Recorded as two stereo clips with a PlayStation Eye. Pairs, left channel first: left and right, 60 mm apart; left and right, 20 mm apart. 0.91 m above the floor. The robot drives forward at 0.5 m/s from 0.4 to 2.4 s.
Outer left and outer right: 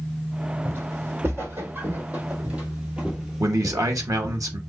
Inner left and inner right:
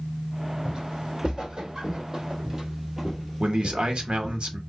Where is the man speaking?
65° right (ahead or behind), 1.0 m.